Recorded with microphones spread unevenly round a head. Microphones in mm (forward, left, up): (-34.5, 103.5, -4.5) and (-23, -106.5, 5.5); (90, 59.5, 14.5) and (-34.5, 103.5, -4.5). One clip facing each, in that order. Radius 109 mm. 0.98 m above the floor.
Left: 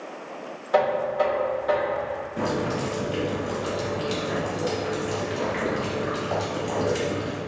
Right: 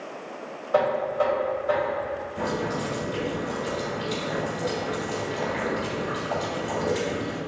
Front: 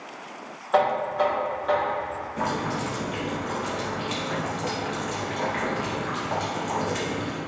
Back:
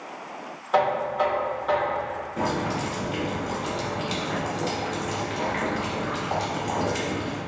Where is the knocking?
70° left, 1.8 m.